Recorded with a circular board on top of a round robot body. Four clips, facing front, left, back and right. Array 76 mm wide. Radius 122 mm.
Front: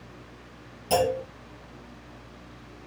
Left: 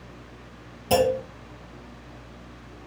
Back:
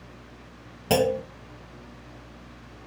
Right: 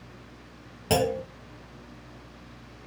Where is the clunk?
145° right, 5 m.